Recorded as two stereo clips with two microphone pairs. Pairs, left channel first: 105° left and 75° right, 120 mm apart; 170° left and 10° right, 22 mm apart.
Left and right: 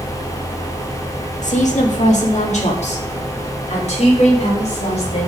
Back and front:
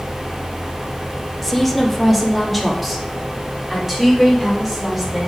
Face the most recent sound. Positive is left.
turn(degrees=70)